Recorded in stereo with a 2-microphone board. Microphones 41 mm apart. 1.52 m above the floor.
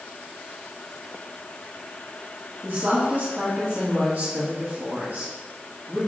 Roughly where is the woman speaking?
Right.